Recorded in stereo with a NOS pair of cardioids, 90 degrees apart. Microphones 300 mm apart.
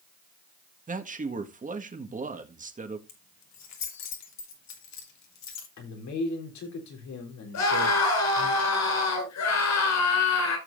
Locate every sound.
0.9 s a man speaking: 25° right, 1.7 m
3.1 s keys jangling: 65° left, 3 m
5.8 s a man speaking: 70° left, 3.5 m
7.5 s a scream: 65° left, 6 m